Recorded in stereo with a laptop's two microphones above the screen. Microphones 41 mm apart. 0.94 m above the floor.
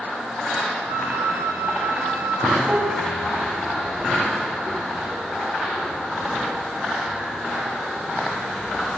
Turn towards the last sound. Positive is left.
turn(degrees=-20)  # may be behind; listen again after turning